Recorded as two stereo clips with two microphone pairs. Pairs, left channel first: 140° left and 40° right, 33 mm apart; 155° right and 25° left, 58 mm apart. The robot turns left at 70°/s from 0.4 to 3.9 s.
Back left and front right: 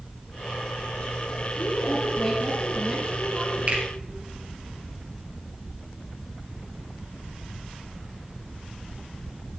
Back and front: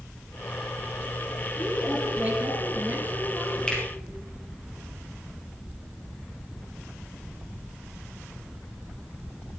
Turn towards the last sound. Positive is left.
turn(degrees=-100)